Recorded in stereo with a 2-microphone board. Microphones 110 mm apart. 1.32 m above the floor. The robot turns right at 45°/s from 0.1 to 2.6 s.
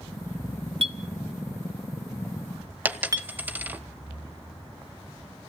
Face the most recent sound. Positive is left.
turn(degrees=-15)  # may be behind; listen again after turning